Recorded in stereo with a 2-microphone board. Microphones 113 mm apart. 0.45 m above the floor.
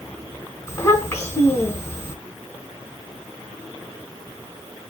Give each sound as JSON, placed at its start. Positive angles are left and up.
{"t": 0.7, "sound": "a child speaking", "side_deg": 25, "distance_m": 2.0}